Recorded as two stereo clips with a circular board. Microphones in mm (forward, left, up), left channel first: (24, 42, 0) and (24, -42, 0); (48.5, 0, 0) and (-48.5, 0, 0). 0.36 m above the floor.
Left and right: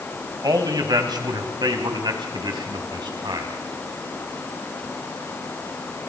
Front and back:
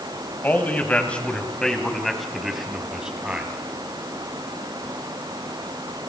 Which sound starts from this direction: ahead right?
A man speaking, at 0.4 s.